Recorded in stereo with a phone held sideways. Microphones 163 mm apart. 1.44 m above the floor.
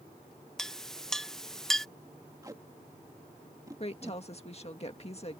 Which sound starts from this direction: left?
A woman speaking, at 3.8 s.